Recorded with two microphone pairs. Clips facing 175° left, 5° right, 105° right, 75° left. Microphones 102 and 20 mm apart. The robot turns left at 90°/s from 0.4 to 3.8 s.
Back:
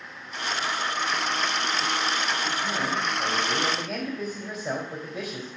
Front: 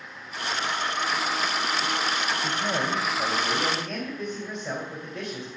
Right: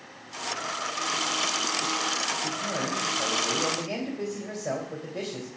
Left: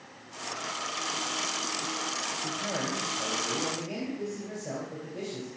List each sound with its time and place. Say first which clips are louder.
2.4 s a man speaking: front 1 dB, right 2 dB; 20° left, 3 m; by 5.5 s 100° right, 3 m